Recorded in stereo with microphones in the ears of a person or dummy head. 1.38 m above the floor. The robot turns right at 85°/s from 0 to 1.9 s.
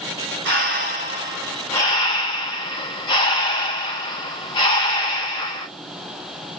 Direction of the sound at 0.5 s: 95° right.